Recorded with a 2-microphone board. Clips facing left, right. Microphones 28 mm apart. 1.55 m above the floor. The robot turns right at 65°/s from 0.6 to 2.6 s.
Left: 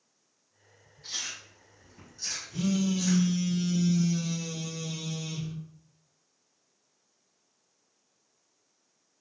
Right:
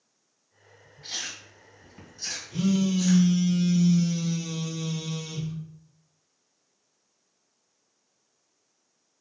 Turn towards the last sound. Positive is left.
turn(degrees=-30)  # may be behind; listen again after turning